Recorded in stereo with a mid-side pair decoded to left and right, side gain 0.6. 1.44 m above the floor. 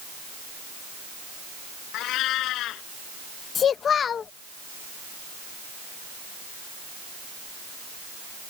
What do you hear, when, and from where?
1.9 s a cat meowing: 65° left
3.5 s a child speaking: 40° left